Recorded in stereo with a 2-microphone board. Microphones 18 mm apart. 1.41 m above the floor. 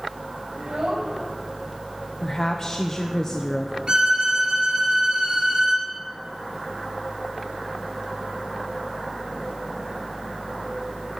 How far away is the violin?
About 5 m.